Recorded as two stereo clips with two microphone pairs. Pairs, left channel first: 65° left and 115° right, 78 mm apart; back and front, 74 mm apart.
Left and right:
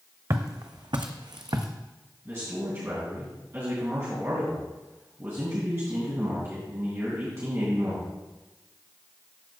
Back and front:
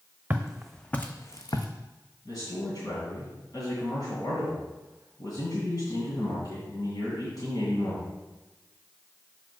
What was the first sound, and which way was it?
Footsteps, 70° right.